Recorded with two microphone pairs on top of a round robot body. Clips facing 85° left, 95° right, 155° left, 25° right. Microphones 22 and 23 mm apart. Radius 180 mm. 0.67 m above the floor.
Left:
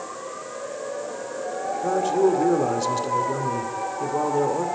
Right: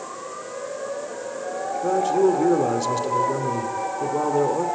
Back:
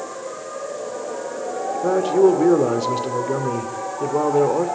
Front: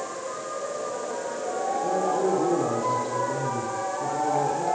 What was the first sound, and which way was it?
A man speaking, straight behind.